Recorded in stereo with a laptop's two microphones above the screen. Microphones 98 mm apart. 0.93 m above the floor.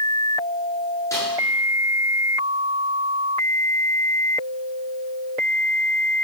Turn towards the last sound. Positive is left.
turn(degrees=35)  # may be behind; listen again after turning